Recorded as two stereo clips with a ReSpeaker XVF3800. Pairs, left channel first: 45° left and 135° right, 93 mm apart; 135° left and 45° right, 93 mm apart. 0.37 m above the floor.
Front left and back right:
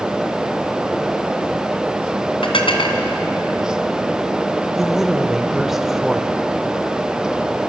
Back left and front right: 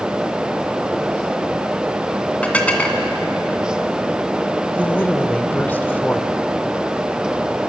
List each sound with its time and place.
2.4 s dishes clattering: 60° left, 2.5 m
4.8 s a woman speaking: 145° left, 1.4 m